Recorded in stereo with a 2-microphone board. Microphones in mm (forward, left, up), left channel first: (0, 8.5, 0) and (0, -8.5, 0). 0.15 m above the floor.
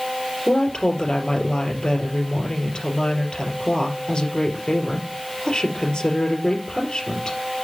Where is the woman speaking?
55° left (ahead or behind), 4 m.